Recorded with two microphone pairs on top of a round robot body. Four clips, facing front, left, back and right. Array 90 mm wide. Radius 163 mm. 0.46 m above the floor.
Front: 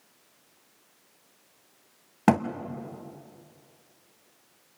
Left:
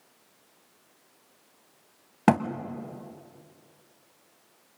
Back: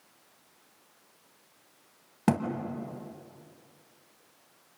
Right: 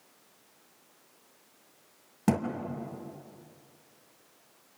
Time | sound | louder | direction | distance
2.3 | a thud | left 6 dB, front 5 dB | 55° left | 1.6 m